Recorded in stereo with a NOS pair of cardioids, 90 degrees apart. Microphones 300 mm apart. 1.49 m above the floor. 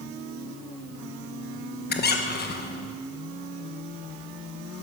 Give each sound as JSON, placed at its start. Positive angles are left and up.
{"t": 1.9, "sound": "a squeak", "azimuth_deg": 35, "distance_m": 1.1}